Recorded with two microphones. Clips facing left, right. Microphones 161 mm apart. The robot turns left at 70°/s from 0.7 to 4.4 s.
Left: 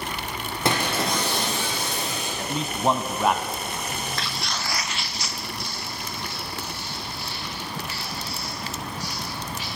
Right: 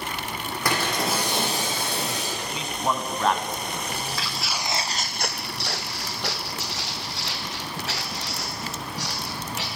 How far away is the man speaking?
About 1.5 m.